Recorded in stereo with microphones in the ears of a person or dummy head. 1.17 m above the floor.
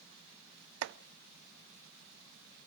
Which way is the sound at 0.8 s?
70° right (ahead or behind).